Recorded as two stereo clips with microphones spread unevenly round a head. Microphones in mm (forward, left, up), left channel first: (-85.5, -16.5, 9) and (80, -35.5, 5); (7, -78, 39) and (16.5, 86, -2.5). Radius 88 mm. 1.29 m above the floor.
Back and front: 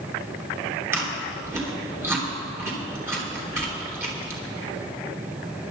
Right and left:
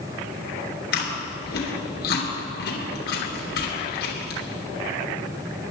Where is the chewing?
80° right, 3.5 m.